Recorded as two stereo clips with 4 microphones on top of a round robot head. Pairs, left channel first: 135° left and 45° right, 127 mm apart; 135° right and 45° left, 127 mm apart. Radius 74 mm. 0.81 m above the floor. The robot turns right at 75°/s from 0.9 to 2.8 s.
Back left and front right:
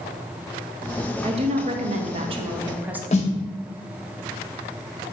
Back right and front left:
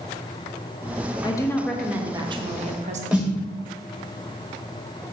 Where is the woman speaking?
85° right, 0.7 m; by 3.0 s 30° left, 0.7 m.